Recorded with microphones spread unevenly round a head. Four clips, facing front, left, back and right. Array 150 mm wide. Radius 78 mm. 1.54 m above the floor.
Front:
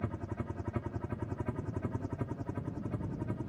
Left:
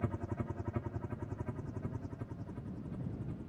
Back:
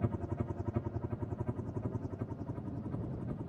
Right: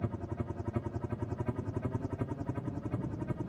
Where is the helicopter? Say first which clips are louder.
Right 1 dB, back 2 dB; 160° right; by 3.5 s 70° right.